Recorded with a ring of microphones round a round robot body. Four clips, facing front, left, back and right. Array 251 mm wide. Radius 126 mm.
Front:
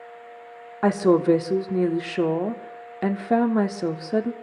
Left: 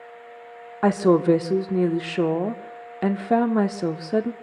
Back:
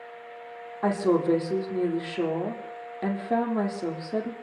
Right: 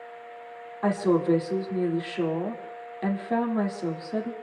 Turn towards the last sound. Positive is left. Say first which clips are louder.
# left 5 dB, front 5 dB
turn(degrees=55)